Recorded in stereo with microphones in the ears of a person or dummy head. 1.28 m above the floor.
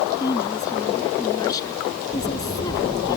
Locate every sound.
0.2 s a woman speaking: 20° left (ahead or behind)